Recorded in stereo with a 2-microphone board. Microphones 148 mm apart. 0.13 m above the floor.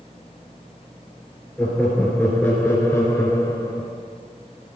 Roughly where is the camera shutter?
No camera shutter in this recording.